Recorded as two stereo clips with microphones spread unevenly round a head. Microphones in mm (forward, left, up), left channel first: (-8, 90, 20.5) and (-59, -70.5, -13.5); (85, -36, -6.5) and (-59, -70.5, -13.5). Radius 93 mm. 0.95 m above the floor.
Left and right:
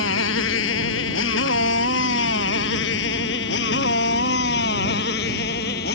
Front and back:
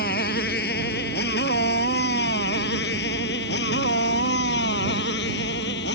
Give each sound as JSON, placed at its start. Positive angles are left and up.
{"t": 0.0, "sound": "a motorcycle", "azimuth_deg": 55}